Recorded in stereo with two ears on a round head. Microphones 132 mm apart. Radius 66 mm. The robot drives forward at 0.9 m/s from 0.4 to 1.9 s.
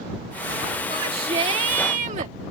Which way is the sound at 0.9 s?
35° right (ahead or behind).